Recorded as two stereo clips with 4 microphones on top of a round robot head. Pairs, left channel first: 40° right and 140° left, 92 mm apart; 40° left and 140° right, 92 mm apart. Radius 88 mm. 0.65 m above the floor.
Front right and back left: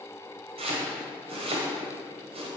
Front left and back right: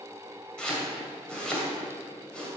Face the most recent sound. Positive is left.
turn(degrees=125)